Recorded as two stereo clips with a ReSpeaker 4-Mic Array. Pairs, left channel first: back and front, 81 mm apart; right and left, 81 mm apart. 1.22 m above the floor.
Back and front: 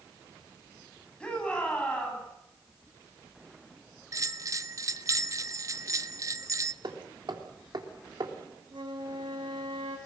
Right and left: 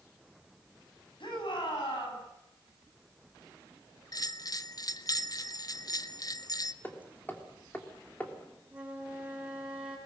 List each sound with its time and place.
1.2 s a shout: 100° right, 9.5 m
4.1 s a bell: 50° right, 0.8 m
6.8 s hammering: 20° right, 3 m
8.7 s a flute: 20° left, 7 m